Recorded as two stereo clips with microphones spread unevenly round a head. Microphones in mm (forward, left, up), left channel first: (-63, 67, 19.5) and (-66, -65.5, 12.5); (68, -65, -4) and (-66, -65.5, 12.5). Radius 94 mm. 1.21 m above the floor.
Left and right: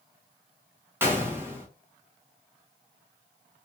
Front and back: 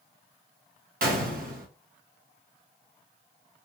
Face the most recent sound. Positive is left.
turn(degrees=-165)